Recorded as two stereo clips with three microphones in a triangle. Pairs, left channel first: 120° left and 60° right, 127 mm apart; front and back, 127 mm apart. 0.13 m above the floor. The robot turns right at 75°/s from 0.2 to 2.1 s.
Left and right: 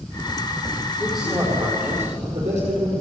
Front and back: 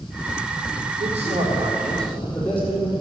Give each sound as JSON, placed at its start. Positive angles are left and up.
{"t": 1.0, "sound": "a man speaking", "azimuth_deg": -165, "distance_m": 4.5}